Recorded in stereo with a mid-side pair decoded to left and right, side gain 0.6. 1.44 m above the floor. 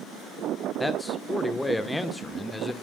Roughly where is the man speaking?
Ahead.